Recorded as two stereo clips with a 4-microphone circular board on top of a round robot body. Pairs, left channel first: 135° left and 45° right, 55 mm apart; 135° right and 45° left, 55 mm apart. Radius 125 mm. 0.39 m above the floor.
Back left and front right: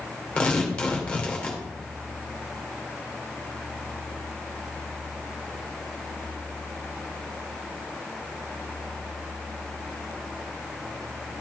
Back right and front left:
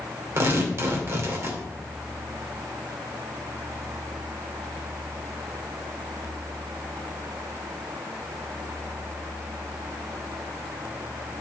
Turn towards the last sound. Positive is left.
turn(degrees=65)